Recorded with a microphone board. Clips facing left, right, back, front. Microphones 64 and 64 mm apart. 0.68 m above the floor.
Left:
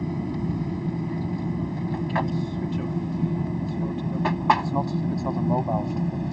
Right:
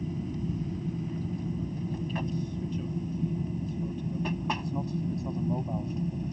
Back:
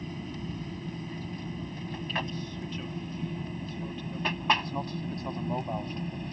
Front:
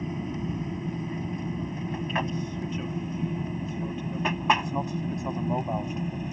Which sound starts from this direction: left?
An aircraft, at 0.0 s.